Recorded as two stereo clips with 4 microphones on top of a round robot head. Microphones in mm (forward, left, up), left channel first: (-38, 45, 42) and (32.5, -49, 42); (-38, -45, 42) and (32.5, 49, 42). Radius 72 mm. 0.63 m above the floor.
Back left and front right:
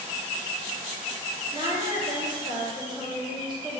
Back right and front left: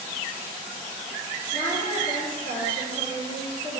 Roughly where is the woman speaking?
Right.